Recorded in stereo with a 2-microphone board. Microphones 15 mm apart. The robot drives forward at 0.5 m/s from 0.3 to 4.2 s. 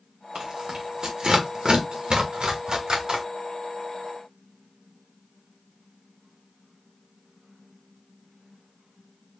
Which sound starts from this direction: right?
Tearing paper, at 0.3 s.